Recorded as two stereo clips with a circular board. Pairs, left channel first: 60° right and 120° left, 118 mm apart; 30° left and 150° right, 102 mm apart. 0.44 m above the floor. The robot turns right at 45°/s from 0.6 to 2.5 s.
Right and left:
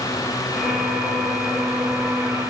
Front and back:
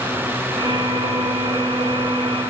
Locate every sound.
Only background noise.